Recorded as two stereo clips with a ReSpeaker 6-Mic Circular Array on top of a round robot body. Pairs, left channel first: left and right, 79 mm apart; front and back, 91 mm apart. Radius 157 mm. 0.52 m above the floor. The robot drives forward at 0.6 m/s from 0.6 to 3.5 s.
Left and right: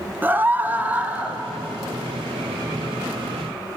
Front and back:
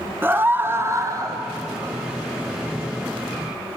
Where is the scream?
135° right, 1.2 m; by 1.4 s 155° right, 1.4 m.